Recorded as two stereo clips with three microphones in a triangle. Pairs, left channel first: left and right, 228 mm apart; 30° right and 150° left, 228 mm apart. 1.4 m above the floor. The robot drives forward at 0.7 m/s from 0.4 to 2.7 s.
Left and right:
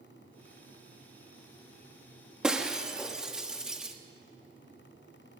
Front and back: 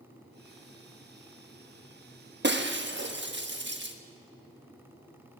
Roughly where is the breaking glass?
Behind.